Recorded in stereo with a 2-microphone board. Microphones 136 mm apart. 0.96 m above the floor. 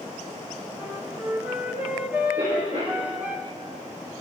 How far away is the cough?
About 5 m.